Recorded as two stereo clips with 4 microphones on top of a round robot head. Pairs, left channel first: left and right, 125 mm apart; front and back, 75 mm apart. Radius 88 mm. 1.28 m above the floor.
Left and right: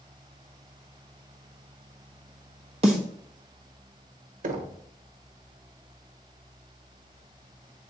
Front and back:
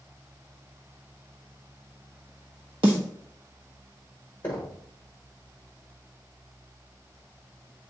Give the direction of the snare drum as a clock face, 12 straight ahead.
5 o'clock.